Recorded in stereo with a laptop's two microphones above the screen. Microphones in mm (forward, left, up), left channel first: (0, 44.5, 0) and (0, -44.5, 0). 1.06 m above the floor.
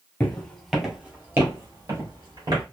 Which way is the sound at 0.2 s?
20° left (ahead or behind).